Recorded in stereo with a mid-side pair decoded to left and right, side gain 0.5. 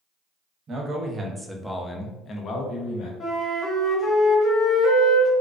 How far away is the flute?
About 0.8 m.